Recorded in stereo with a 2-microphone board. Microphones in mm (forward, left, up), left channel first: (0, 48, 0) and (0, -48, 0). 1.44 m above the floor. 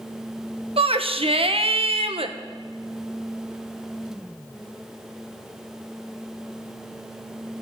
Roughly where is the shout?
Right.